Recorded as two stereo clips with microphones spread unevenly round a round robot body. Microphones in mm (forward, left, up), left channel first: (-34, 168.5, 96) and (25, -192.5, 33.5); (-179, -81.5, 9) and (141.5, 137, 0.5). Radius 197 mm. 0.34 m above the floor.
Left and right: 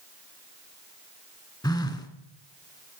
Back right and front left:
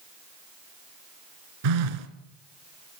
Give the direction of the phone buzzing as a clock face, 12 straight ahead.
11 o'clock.